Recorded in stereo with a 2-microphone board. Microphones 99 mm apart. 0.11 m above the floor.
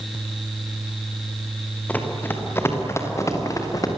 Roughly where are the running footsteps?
Centre.